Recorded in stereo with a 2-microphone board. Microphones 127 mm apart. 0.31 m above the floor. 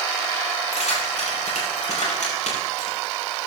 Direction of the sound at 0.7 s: 65° left (ahead or behind).